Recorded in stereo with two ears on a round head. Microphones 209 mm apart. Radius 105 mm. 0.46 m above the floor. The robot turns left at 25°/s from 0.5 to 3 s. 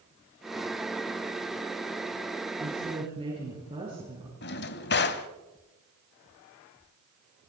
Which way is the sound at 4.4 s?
50° left (ahead or behind).